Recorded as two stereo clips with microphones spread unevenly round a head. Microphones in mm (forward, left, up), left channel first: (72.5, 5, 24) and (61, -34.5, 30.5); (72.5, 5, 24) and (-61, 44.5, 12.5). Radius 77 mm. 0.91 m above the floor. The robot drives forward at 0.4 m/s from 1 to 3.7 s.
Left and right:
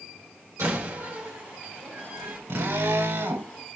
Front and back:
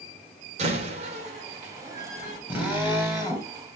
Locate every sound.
0.6 s a door slam: 150° right, 3 m; by 2.4 s 155° right, 3.5 m
2.5 s a drill: 115° right, 3 m; by 3.5 s 125° right, 3.5 m